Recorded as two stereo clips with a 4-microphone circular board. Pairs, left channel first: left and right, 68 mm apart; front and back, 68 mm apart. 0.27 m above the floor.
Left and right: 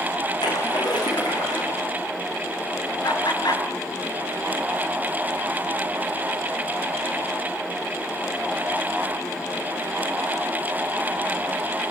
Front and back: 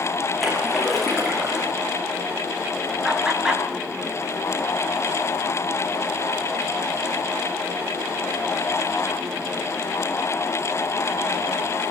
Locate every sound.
0.4 s a splash: 90° left, 9 m
3.0 s laughter: 105° left, 4.5 m